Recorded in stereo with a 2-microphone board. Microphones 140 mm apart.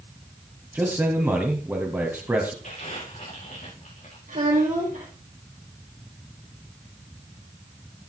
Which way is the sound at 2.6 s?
65° left (ahead or behind).